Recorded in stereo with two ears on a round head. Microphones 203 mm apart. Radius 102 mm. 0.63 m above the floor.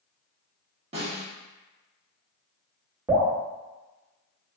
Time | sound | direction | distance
0.9 | a snare drum | 25° right (ahead or behind) | 1.2 m
3.1 | dripping | 5° right (ahead or behind) | 1.2 m